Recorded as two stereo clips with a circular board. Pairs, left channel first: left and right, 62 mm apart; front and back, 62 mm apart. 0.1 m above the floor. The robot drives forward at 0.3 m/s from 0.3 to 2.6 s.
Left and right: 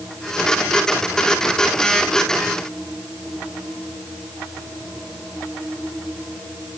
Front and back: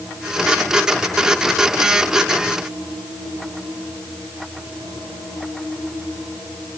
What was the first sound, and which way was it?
Only background noise.